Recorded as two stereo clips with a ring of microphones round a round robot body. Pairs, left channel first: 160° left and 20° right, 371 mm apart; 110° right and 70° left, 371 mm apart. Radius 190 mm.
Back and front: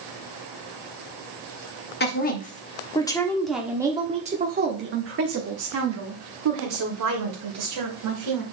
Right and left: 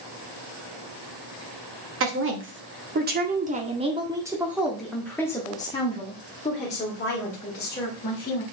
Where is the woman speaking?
105° left, 1.7 m; by 8.4 s 50° right, 3 m.